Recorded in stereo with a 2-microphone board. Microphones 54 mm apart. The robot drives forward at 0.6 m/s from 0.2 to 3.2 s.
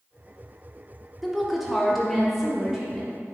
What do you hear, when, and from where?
1.2 s a woman speaking: 5° right (ahead or behind), 0.9 m; by 3.1 s centre (ahead or behind), 1.9 m